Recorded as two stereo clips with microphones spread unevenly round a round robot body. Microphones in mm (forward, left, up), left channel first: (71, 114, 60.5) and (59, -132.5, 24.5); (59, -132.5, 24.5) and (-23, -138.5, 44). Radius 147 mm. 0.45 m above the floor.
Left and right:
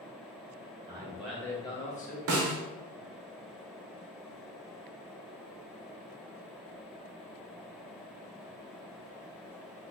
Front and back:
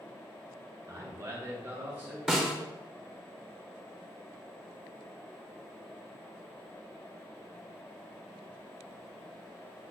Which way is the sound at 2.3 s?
85° right.